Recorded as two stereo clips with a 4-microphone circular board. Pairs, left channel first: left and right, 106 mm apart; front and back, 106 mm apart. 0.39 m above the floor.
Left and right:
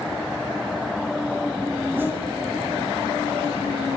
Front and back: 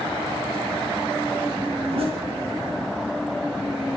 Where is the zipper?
160° right, 4.5 m.